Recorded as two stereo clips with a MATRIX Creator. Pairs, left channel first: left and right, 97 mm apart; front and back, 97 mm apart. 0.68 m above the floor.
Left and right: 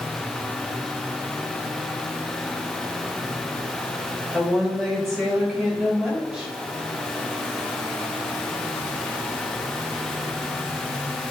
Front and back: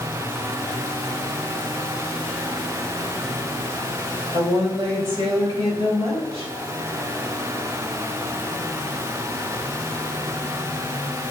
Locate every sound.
4.3 s a woman speaking: 175° left, 3 m; by 6.5 s 170° right, 4 m